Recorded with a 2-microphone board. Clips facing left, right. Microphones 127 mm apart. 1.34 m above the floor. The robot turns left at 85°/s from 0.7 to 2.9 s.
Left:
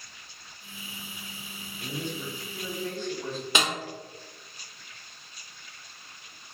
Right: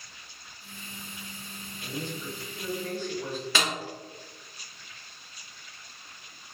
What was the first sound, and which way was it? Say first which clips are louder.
A man speaking: left 1 dB; 80° left.